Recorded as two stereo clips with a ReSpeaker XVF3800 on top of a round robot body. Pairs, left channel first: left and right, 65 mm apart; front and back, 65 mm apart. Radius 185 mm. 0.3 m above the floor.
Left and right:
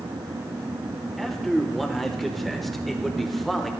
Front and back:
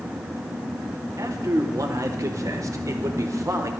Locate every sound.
1.2 s a man speaking: straight behind, 1.4 m